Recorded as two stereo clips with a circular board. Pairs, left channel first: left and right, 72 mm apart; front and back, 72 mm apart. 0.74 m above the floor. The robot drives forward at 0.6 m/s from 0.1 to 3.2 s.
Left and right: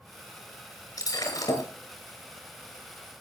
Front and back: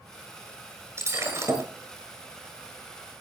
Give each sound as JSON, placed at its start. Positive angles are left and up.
{"t": 1.0, "sound": "breaking glass", "azimuth_deg": 130, "distance_m": 6.0}